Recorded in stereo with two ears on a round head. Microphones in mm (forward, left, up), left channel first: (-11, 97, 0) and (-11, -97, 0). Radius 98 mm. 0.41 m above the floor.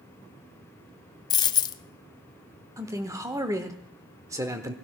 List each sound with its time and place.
1.3 s a dropped coin: 20° left (ahead or behind), 0.6 m
2.8 s a man speaking: 15° right (ahead or behind), 1.0 m